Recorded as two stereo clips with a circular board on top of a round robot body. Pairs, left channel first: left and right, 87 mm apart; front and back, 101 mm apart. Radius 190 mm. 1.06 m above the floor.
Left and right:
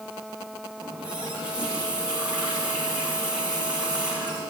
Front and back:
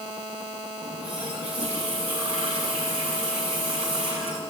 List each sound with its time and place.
0.8 s a running tap: 165° right, 7 m